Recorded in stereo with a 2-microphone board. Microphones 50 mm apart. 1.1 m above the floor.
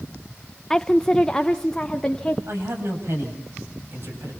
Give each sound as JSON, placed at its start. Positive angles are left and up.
{"t": 0.7, "sound": "a woman speaking", "side_deg": 15, "distance_m": 0.5}
{"t": 2.5, "sound": "a man speaking", "side_deg": -60, "distance_m": 8.5}